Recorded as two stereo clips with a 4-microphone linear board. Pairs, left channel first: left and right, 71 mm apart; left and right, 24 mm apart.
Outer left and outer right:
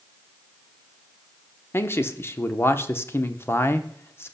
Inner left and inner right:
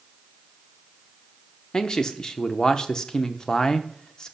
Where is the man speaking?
35° left (ahead or behind), 0.7 m.